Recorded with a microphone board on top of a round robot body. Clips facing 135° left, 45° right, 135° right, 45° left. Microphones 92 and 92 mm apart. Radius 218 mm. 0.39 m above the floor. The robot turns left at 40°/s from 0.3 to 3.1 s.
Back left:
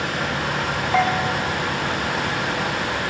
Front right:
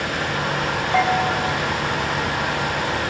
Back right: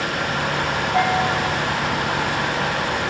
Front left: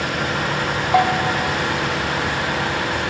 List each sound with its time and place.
0.9 s a bell: 45° left, 0.9 m; by 1.3 s 30° left, 0.9 m